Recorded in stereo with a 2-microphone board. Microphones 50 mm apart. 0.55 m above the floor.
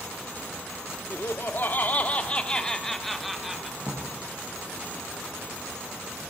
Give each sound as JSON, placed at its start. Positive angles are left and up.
{"t": 1.1, "sound": "laughter", "side_deg": 50, "distance_m": 1.0}
{"t": 3.8, "sound": "a drawer", "side_deg": 60, "distance_m": 5.5}